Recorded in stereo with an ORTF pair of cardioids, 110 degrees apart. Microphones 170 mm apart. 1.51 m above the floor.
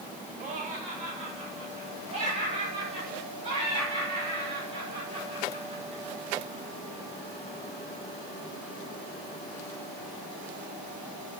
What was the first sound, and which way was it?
Laughter, 50° right.